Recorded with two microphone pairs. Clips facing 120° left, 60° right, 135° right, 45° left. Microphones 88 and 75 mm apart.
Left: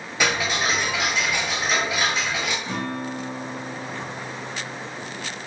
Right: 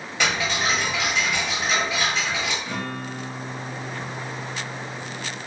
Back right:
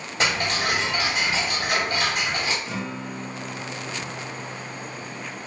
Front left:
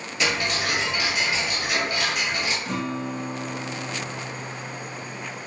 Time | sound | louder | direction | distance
0.2 | ticking | left 1 dB, back right 1 dB | 165° right | 1.0 m
2.6 | a guitar | left 2 dB, front left 3 dB | 60° left | 0.7 m